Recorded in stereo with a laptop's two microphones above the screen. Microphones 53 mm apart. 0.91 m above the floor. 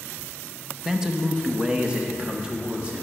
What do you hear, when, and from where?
0.8 s a man speaking: 10° right (ahead or behind), 0.7 m; by 3.0 s 20° right (ahead or behind), 1.8 m